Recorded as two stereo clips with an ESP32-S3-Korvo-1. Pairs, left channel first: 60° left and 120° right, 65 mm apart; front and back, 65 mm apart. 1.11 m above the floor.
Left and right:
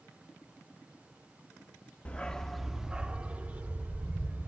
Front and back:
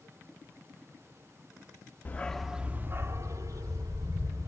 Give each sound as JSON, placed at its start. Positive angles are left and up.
{"t": 2.0, "sound": "a dog barking", "azimuth_deg": 15, "distance_m": 0.7}